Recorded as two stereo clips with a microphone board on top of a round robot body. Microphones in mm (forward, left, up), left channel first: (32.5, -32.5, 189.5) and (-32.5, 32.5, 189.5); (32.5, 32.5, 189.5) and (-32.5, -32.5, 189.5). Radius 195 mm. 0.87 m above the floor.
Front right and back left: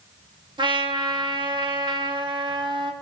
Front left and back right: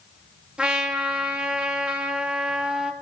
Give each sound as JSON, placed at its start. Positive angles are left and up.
{"t": 0.6, "sound": "a trumpet", "azimuth_deg": 145, "distance_m": 1.2}